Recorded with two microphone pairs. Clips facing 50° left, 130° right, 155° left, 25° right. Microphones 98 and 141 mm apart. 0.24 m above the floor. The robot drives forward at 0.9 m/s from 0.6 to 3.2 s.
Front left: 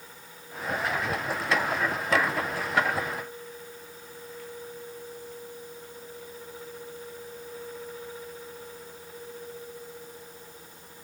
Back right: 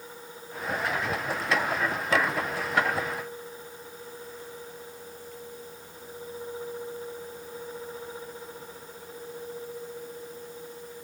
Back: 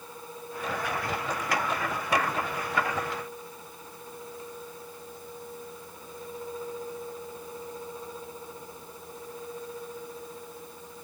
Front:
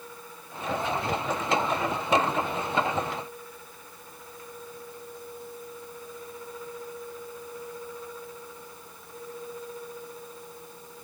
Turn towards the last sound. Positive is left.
No sound to turn to.